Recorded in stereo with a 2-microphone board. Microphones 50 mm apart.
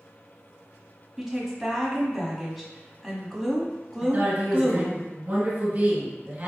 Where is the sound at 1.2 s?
5° right (ahead or behind), 1.3 m.